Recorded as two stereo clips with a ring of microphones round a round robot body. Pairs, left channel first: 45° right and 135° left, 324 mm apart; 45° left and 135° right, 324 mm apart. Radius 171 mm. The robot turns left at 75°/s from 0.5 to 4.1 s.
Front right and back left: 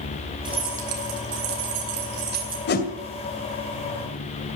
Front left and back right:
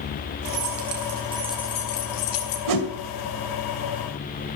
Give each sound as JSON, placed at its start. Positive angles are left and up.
{"t": 0.5, "sound": "keys jangling", "azimuth_deg": -150, "distance_m": 4.0}
{"t": 2.7, "sound": "a whoosh", "azimuth_deg": -100, "distance_m": 2.0}